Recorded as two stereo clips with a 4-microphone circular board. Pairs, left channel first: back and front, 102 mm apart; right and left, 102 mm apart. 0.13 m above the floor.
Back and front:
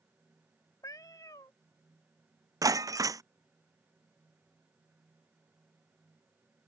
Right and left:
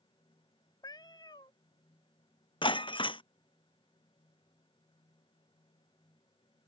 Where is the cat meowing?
130° right.